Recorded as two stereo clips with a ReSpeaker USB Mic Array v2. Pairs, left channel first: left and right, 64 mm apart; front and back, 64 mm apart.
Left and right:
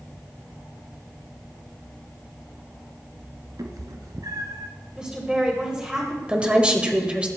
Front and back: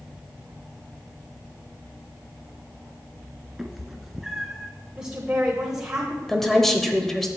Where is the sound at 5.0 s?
125° right, 1.3 m.